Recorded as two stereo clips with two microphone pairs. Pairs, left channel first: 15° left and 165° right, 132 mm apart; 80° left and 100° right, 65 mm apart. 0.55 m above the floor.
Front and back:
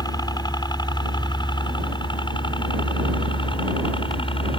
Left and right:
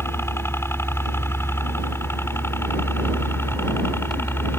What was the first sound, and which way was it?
A helicopter, 55° left.